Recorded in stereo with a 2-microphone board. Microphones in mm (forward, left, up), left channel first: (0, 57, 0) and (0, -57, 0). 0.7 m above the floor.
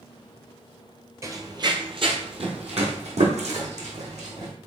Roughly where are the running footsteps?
Right.